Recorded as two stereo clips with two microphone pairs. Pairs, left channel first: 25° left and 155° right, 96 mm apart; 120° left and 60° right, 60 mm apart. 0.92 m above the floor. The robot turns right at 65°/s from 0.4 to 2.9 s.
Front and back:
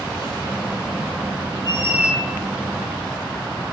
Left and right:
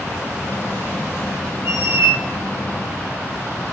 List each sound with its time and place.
1.6 s a squeak: 105° right, 0.7 m; by 2.2 s 65° right, 0.7 m